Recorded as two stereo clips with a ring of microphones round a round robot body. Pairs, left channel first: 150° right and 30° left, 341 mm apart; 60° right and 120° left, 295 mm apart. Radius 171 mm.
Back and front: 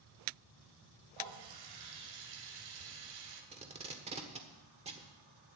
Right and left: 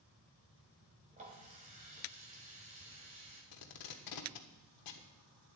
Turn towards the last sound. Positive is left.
turn(degrees=-40)